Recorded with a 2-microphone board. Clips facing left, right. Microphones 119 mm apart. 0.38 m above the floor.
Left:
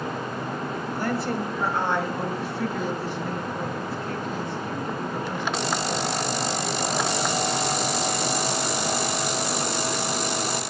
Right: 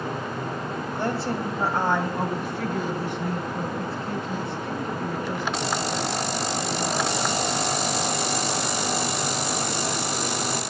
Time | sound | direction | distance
0.9 | a woman speaking | 25° right (ahead or behind) | 2 m